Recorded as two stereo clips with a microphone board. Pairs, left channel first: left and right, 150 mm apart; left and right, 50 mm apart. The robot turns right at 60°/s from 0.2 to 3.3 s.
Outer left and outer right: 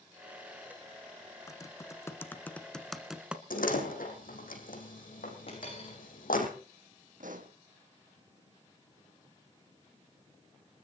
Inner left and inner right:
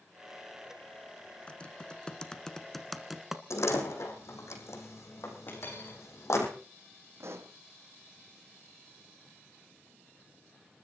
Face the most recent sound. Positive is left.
turn(degrees=-70)  # may be behind; listen again after turning